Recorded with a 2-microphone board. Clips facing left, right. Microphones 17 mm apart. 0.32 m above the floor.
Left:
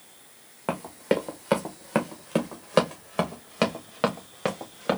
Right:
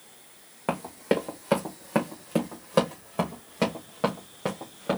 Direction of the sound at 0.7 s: 5° left (ahead or behind).